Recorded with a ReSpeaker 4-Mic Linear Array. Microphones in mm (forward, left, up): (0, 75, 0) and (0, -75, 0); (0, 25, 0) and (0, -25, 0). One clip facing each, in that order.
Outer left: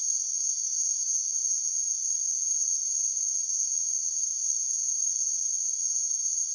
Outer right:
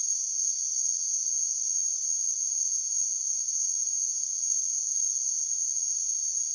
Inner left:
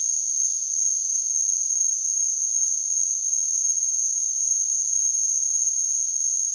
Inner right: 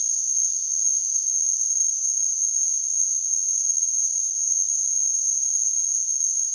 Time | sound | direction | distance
0.0 | an insect | 35° right (ahead or behind) | 0.9 m